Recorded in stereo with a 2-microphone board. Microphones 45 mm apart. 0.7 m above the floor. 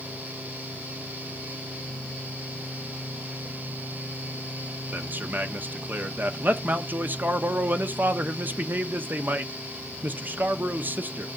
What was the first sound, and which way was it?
A man speaking, 45° right (ahead or behind).